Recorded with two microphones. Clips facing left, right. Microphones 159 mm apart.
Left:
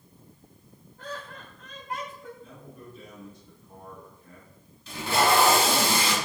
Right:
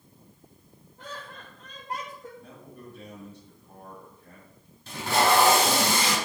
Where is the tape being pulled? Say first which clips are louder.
Even; 50° right (ahead or behind), 3.5 m.